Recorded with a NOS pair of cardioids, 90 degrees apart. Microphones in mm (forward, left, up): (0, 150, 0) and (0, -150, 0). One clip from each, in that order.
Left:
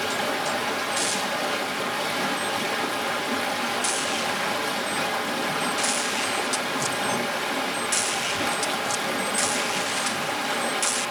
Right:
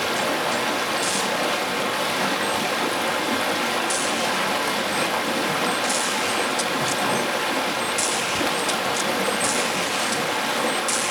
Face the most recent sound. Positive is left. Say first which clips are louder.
# right 3 dB
turn(degrees=-25)